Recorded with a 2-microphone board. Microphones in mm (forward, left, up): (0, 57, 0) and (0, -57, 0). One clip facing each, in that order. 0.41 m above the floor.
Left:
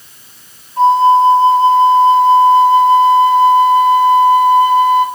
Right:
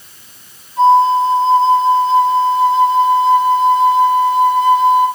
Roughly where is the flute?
Left.